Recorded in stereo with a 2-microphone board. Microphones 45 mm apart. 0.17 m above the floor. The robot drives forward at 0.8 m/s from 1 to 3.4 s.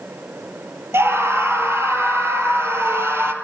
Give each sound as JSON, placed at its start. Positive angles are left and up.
{"t": 0.9, "sound": "a scream", "side_deg": -70, "distance_m": 4.0}